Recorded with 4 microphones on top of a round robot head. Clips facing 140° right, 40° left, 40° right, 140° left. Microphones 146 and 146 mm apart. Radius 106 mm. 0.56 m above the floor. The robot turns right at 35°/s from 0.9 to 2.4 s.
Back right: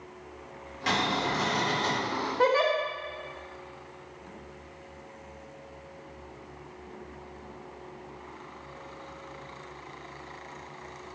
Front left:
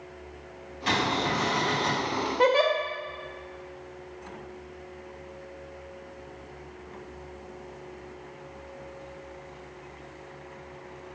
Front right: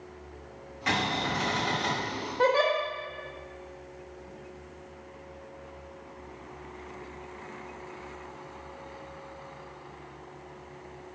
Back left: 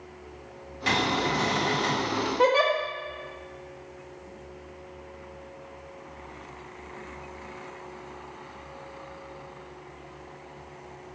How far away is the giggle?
About 0.6 m.